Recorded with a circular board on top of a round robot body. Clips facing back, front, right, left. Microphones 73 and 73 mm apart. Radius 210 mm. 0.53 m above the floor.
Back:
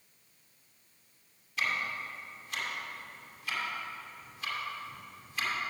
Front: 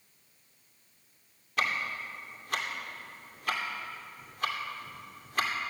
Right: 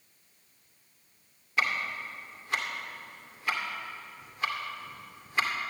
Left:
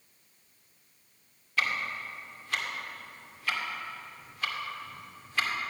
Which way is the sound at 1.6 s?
20° right.